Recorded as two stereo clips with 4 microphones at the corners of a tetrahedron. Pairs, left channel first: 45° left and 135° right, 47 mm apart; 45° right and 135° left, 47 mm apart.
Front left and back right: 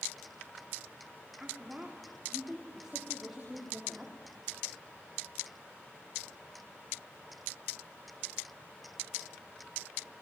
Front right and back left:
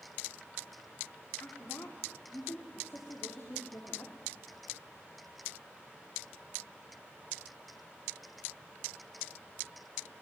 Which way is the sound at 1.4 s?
60° right.